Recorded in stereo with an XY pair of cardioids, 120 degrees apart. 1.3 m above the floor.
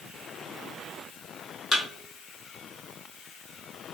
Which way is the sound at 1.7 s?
30° left.